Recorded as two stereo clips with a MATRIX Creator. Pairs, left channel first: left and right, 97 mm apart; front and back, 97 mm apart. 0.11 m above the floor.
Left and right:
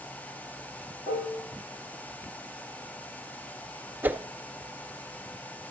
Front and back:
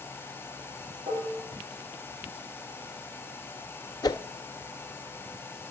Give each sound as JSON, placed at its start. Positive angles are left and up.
{"t": 1.1, "sound": "dishes clattering", "azimuth_deg": 115, "distance_m": 9.0}
{"t": 4.0, "sound": "a whoosh", "azimuth_deg": -25, "distance_m": 0.5}